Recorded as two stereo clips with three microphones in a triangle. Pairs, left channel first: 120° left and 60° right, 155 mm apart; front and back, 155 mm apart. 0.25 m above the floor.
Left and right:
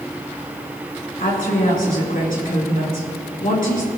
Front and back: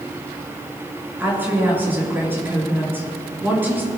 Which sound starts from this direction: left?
A woman speaking, at 1.2 s.